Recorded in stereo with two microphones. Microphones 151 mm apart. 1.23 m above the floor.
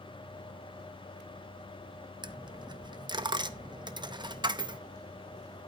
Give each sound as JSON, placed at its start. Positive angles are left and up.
{"t": 2.2, "sound": "a dropped coin", "side_deg": -30, "distance_m": 0.6}